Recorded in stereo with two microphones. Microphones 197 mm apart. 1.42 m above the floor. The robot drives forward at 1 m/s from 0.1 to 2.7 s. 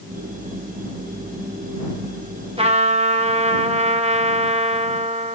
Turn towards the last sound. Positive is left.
turn(degrees=-35)  # may be behind; listen again after turning